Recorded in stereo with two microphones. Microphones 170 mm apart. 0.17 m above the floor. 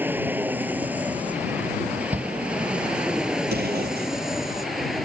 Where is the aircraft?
10° right (ahead or behind); by 5.1 s centre (ahead or behind).